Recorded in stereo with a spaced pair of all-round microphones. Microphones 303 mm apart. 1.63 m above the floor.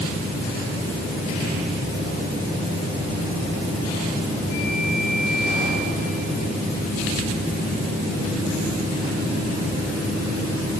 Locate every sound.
Only background noise.